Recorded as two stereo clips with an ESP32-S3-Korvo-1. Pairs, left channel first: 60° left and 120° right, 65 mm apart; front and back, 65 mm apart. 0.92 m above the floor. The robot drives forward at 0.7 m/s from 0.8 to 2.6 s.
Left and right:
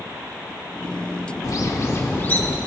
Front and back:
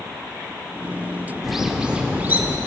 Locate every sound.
1.4 s a bird: 90° left, 1.1 m; by 2.6 s 125° left, 1.3 m